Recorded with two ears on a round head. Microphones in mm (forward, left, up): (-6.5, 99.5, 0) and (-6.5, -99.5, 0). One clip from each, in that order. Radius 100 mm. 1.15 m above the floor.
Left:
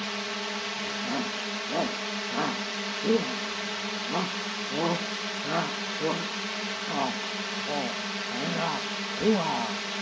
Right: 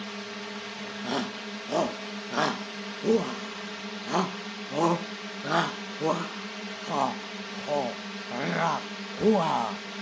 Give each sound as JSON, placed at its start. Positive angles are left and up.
{"t": 0.0, "sound": "a drone", "side_deg": 30}
{"t": 1.0, "sound": "a shout", "side_deg": -80}